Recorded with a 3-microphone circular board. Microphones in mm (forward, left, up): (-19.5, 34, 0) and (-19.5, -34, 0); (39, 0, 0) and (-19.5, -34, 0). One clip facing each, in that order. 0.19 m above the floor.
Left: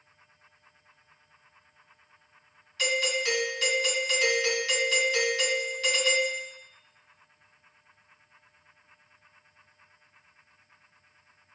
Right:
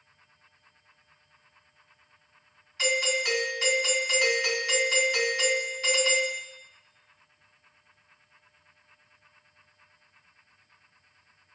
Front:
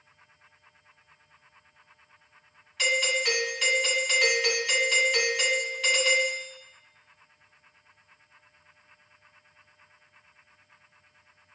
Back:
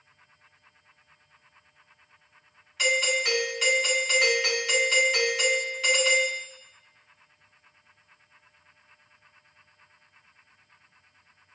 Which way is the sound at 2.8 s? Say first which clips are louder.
Right 1 dB, back 1 dB; 65° right.